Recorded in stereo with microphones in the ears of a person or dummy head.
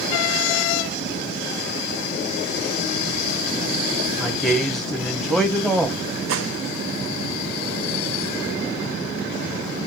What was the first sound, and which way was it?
A man speaking, 5° right (ahead or behind).